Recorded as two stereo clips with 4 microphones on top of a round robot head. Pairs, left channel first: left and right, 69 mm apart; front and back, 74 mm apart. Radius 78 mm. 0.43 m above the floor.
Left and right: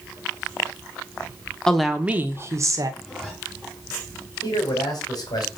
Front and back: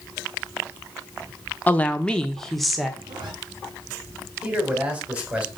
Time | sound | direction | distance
1.7 | a woman speaking | 25° left | 0.8 m
3.0 | a zipper | 170° left | 3.5 m
4.4 | a man speaking | 105° left | 3 m